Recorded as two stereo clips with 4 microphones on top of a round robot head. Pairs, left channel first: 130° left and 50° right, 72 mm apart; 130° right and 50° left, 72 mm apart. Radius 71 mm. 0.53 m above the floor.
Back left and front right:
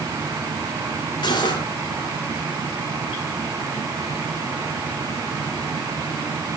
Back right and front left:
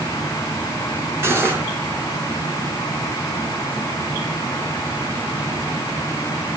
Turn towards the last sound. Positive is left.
turn(degrees=110)